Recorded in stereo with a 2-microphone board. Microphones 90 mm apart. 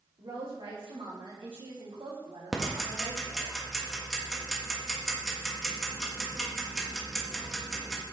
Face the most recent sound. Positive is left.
turn(degrees=0)  # may be behind; listen again after turning